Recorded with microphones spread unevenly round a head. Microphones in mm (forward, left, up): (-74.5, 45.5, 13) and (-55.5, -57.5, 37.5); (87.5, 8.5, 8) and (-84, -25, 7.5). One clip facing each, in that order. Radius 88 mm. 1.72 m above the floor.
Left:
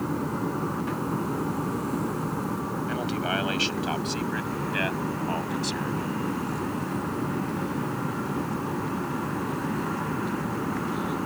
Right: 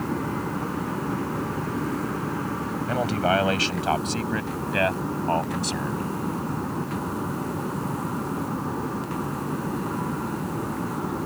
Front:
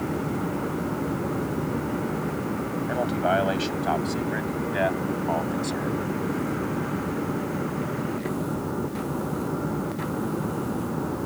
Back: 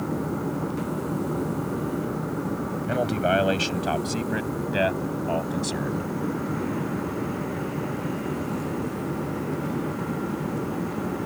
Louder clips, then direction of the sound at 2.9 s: Right 8 dB, back 1 dB; 115° right.